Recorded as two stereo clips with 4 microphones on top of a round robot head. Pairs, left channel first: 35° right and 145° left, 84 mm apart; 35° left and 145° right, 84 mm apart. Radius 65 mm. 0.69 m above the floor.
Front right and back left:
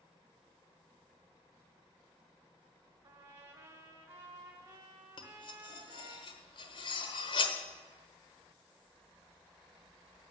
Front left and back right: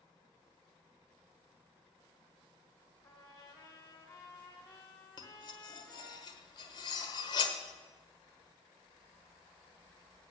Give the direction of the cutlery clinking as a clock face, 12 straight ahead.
12 o'clock.